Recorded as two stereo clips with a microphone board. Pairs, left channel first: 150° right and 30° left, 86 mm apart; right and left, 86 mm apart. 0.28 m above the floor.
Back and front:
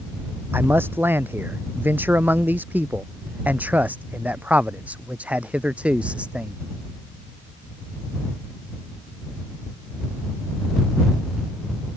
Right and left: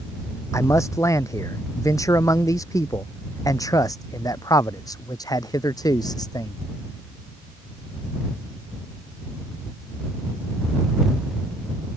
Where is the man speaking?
35° right; by 6.6 s 45° right.